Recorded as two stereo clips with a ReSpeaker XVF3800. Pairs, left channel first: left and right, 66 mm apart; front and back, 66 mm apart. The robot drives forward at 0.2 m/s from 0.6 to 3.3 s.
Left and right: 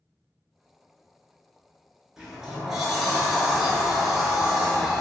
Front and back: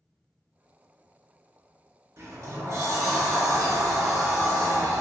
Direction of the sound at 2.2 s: 170° right.